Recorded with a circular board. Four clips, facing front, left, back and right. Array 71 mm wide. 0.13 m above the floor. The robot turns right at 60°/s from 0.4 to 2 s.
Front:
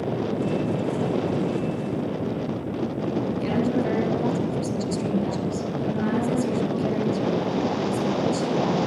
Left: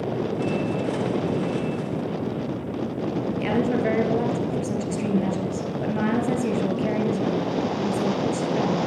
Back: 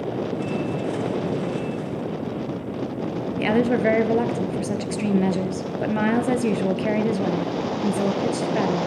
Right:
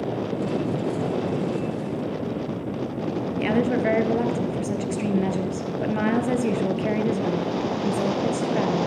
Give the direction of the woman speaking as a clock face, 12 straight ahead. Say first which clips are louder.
Right 2 dB, back 7 dB; 6 o'clock.